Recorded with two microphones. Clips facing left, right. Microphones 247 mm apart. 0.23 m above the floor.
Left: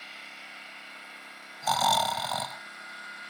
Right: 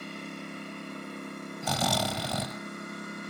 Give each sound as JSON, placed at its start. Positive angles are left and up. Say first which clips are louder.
{"t": 0.0, "sound": "a lawn mower", "louder": "right 16 dB", "side_deg": -55}
{"t": 1.6, "sound": "snoring", "louder": "right 1 dB", "side_deg": -30}